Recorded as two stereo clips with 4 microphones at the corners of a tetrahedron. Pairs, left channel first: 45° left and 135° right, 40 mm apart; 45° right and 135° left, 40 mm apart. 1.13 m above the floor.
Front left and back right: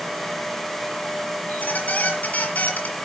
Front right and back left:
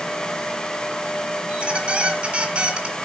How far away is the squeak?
About 1.8 m.